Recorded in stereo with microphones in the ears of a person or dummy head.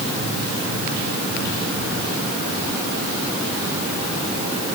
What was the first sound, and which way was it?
Only background noise.